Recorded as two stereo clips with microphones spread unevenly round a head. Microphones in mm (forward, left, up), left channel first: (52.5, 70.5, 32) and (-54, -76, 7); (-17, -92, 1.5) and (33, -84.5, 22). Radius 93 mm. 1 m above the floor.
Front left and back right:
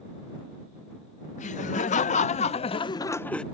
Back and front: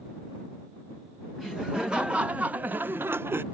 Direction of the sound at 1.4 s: 105° left.